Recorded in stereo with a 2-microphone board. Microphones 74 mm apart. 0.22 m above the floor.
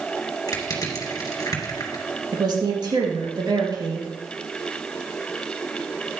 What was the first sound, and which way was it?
Crushing, 50° left (ahead or behind).